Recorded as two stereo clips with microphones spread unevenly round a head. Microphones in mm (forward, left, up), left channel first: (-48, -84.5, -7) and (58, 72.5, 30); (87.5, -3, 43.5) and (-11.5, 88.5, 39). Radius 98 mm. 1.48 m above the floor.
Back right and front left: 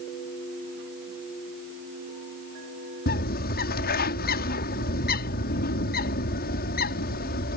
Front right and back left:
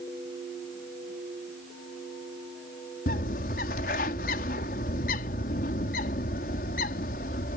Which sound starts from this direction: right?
A bird, at 3.1 s.